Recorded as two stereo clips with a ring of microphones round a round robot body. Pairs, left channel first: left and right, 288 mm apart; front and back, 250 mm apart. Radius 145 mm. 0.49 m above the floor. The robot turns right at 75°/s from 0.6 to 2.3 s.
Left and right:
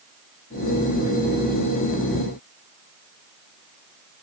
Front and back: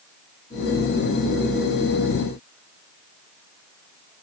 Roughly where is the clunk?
I don't hear a clunk.